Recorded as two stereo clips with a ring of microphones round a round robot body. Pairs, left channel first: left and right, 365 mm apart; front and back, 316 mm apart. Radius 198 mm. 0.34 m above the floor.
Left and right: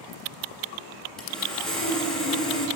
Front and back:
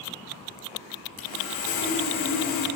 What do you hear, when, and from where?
1.2 s sawing: straight ahead, 1.9 m